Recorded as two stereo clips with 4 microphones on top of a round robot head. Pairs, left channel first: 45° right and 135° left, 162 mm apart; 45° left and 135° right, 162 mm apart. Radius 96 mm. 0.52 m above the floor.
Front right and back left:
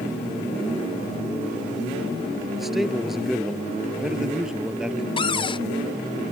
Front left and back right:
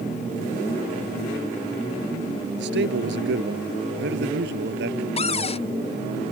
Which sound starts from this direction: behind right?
A man speaking, at 2.6 s.